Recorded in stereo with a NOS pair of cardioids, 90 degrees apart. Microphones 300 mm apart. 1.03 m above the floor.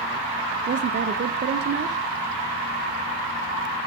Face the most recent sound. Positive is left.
turn(degrees=-35)